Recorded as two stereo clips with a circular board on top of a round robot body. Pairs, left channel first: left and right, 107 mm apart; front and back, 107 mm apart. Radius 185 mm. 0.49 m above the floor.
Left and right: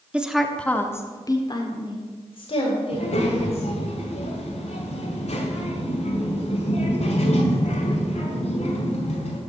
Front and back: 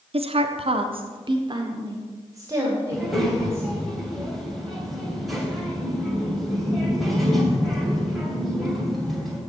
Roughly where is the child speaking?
Left.